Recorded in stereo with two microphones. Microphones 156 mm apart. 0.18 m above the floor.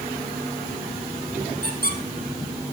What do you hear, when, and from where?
1.6 s a squeak: 75° right (ahead or behind), 2.5 m